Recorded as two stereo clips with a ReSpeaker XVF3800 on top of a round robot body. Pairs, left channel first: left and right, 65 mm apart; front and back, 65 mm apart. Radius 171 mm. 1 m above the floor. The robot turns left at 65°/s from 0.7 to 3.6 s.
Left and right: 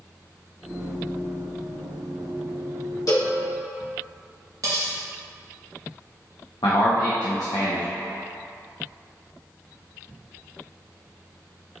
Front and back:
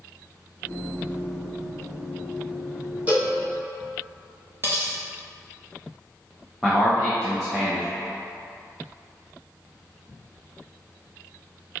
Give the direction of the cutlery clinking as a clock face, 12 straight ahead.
4 o'clock.